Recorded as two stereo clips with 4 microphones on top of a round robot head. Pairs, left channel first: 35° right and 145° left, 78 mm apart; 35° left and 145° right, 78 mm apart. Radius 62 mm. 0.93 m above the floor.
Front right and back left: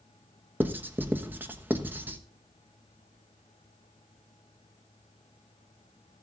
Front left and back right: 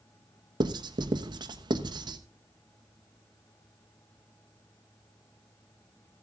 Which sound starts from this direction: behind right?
Writing, at 0.6 s.